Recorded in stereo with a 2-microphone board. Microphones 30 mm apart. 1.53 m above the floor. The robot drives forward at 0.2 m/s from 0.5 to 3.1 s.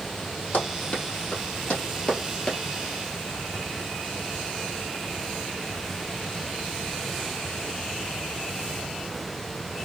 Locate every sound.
0.5 s running footsteps: 55° left (ahead or behind), 3 m; by 2.6 s 30° left (ahead or behind), 1.8 m